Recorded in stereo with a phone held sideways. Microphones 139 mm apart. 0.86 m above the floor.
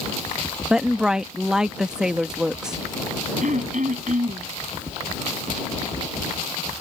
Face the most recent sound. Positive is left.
turn(degrees=-65)  # may be behind; listen again after turning